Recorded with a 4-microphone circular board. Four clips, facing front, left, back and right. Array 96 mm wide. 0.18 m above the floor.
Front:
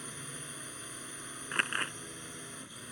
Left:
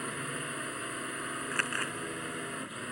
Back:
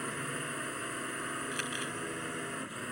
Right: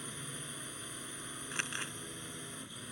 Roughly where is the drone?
Behind left.